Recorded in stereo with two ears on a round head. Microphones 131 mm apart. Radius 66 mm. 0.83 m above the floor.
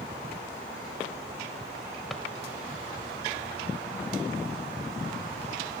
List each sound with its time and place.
2.1 s a drawer: centre (ahead or behind), 1.7 m